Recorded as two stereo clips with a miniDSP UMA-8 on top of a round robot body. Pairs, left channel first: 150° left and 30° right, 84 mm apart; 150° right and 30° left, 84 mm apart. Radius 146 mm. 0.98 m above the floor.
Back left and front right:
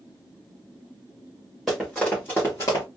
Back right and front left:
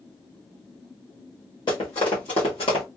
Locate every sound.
1.7 s running footsteps: 120° right, 1.3 m; by 2.9 s 165° right, 1.2 m